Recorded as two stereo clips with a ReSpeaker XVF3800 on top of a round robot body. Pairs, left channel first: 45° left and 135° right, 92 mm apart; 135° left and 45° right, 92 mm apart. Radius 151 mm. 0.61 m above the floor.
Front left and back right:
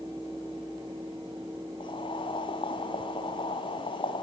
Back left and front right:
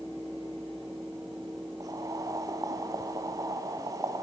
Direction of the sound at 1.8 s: 10° left.